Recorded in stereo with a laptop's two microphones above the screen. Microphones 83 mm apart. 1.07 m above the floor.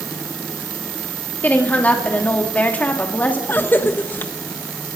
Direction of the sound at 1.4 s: 20° left (ahead or behind).